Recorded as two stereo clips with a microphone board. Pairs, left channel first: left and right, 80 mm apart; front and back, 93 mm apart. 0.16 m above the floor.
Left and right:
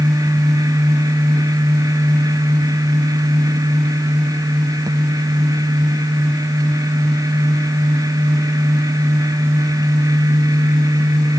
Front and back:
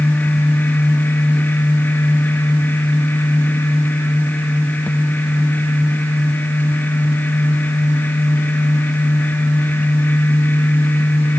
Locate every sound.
Only background noise.